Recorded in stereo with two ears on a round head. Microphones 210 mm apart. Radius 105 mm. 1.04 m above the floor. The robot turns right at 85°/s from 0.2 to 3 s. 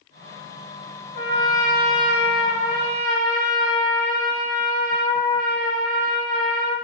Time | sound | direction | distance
1.1 | a trumpet | 130° left | 0.8 m